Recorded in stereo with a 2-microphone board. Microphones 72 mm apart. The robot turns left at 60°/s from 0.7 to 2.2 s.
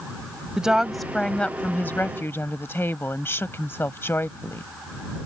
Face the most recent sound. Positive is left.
turn(degrees=105)